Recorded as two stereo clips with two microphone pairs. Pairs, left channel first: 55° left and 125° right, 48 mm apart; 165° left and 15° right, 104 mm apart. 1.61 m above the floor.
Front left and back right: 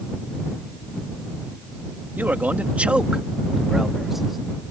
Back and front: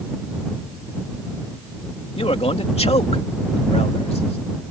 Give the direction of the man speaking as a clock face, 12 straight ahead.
6 o'clock.